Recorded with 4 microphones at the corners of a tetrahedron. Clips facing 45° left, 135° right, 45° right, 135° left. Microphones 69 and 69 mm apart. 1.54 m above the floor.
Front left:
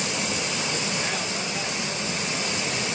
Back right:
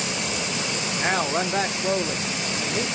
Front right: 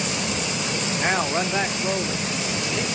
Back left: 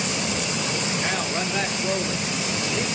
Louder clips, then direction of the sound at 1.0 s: Back right 6 dB, front right 3 dB; 95° right.